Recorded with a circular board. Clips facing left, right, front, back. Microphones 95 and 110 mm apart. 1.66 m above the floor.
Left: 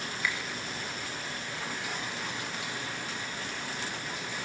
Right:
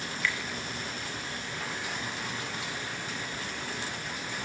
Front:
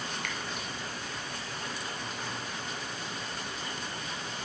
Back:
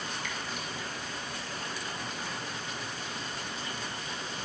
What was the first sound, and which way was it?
A finger snap, 15° left.